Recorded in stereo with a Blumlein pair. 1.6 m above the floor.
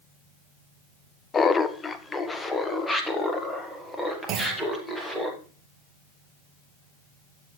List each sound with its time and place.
1.3 s laughter: 20° left, 0.7 m; by 5.3 s 5° left, 3 m
4.3 s a clunk: 35° right, 1.1 m